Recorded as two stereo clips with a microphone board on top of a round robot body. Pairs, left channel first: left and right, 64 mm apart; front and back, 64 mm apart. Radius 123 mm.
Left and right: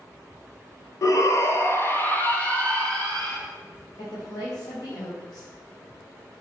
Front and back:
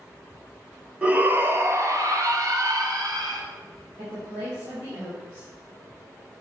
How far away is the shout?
About 1.5 m.